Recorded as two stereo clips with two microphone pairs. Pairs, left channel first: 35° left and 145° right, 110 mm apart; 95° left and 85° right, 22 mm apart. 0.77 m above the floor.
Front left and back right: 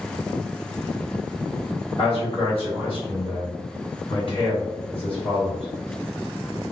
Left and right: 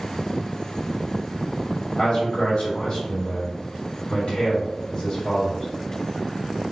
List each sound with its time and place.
2.0 s a man speaking: 55° left, 1.5 m